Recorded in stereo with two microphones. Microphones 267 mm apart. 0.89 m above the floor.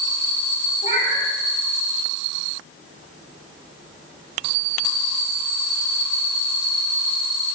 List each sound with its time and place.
0.8 s a cat meowing: 30° left (ahead or behind), 1.0 m